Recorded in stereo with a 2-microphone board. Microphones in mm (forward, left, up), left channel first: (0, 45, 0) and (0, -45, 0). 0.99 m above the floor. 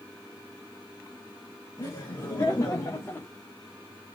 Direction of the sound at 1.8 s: 45° left (ahead or behind).